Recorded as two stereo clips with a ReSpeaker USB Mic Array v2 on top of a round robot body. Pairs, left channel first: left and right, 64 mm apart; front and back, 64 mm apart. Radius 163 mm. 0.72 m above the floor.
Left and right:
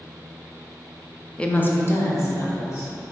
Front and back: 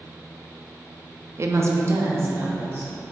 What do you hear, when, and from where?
1.4 s a woman speaking: 160° left, 0.5 m; by 2.9 s 130° left, 1.5 m